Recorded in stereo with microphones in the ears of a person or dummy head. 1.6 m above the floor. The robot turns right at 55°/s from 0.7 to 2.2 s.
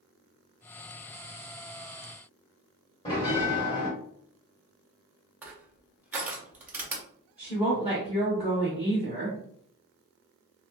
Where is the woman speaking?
5° right (ahead or behind), 1.1 m.